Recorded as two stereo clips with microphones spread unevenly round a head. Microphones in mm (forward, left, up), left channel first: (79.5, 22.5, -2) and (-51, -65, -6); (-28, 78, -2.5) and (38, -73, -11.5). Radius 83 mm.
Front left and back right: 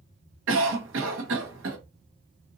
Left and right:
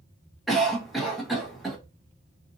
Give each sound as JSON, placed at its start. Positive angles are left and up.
{"t": 0.5, "sound": "a cough", "azimuth_deg": -155, "distance_m": 1.1}